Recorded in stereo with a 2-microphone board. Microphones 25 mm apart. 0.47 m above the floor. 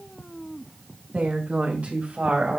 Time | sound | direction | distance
1.1 | a woman speaking | 70° right (ahead or behind) | 3.5 m